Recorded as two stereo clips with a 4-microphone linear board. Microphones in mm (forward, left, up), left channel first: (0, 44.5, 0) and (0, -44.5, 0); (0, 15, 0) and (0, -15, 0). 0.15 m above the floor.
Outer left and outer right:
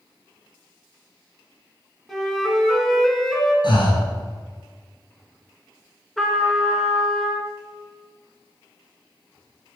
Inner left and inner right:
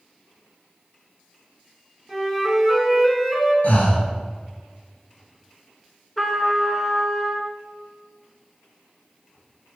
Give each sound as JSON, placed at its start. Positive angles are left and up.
{"t": 2.1, "sound": "a flute", "side_deg": 0, "distance_m": 0.8}
{"t": 3.6, "sound": "breathing", "side_deg": 65, "distance_m": 1.0}
{"t": 6.2, "sound": "a trumpet", "side_deg": 0, "distance_m": 0.6}